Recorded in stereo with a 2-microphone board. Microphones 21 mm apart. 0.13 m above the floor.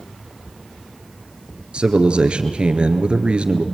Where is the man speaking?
55° right (ahead or behind), 1.8 m.